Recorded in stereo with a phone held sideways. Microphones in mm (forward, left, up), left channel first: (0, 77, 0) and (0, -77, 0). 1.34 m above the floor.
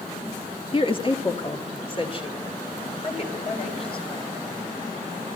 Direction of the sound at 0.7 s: 35° left (ahead or behind).